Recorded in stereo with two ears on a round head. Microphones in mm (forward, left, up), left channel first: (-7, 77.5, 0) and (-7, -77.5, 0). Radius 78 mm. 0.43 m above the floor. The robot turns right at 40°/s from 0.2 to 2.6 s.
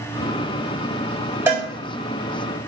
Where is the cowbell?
15° right (ahead or behind), 2.5 m; by 1.7 s 10° right (ahead or behind), 2.5 m.